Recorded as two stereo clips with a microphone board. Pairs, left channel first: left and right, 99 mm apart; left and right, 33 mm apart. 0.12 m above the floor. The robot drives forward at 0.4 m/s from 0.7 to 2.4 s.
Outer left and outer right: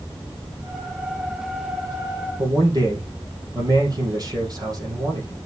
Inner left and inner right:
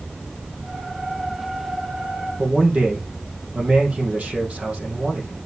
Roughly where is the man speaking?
Right.